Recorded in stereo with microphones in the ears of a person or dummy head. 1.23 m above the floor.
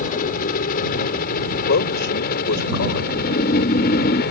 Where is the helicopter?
45° left (ahead or behind); by 4.3 s 55° left (ahead or behind).